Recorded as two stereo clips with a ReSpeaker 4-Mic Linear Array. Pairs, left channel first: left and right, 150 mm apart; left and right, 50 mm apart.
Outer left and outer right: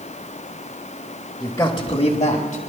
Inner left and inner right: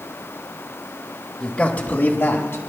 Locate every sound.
1.4 s a man speaking: 10° left (ahead or behind), 1.2 m; by 2.6 s 60° left (ahead or behind), 1.7 m